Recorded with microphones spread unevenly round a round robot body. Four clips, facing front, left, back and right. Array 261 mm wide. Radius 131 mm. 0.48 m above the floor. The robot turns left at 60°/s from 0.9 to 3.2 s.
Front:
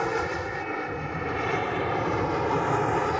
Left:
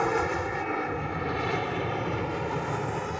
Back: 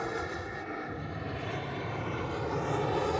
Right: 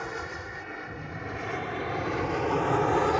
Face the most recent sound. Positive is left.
turn(degrees=-75)